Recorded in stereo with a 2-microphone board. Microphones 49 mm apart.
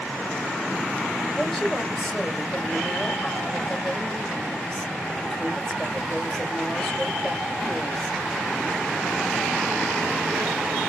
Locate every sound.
1.4 s a woman speaking: 5° left (ahead or behind), 2 m